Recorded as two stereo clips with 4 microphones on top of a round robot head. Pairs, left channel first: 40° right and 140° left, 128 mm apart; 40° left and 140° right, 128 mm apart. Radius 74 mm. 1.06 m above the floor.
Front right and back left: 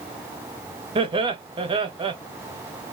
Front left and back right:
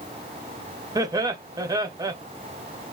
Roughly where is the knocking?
I don't hear knocking.